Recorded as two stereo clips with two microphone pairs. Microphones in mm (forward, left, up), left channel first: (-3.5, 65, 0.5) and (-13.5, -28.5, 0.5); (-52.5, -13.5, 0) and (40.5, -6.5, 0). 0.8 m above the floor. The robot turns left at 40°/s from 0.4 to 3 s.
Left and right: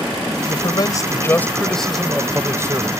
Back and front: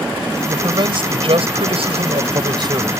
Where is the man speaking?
50° left; by 3.0 s 50° right.